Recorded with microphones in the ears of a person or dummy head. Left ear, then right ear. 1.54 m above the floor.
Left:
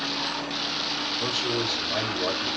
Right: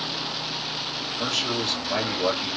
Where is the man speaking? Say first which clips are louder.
Right 4 dB; 80° right, 3 m.